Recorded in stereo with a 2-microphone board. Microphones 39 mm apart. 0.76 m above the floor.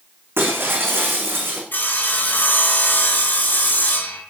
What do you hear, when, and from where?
0.4 s breaking glass: 75° right (ahead or behind), 4 m
1.7 s sawing: 60° left (ahead or behind), 3.5 m